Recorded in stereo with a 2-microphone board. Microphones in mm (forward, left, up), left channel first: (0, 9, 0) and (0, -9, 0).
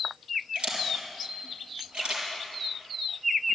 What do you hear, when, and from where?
0.6 s a camera shutter: 85° right, 4.5 m